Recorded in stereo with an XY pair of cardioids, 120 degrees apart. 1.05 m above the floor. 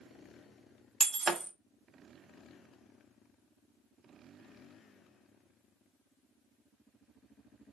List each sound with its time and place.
1.0 s breaking glass: 45° right, 0.9 m